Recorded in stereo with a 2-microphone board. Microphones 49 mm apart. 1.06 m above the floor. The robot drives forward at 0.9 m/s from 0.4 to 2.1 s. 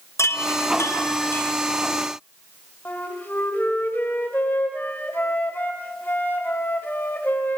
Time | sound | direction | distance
0.2 | a chime | 65° left (ahead or behind) | 1.2 m
2.9 | a flute | 45° left (ahead or behind) | 2.5 m